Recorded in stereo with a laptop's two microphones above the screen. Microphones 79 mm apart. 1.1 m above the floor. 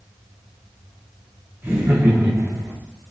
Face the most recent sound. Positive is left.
turn(degrees=-40)  # may be behind; listen again after turning